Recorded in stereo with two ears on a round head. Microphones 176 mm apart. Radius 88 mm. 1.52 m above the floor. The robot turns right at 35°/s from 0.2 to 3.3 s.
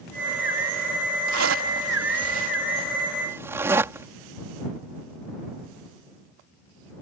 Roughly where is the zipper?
Right.